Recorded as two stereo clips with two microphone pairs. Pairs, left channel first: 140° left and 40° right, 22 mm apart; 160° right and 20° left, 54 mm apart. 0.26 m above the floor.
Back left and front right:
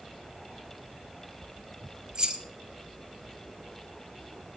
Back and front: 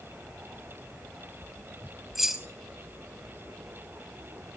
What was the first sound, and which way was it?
Keys jangling, 60° right.